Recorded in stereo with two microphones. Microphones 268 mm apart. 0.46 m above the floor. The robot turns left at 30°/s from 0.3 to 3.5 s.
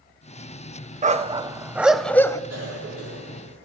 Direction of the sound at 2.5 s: 70° right (ahead or behind).